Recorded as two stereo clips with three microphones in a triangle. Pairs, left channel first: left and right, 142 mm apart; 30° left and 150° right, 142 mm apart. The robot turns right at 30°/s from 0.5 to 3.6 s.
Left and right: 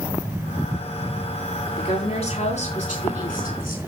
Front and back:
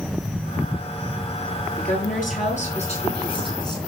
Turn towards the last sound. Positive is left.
turn(degrees=90)